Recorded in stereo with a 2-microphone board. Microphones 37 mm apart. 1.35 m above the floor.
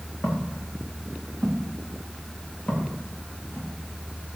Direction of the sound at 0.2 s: 45° left (ahead or behind).